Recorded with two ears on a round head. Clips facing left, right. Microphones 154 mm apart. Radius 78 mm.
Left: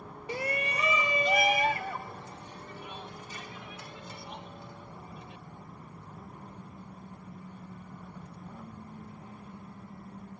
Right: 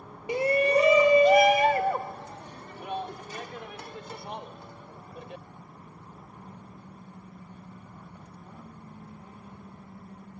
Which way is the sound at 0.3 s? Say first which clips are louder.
Right 11 dB; 15° right (ahead or behind).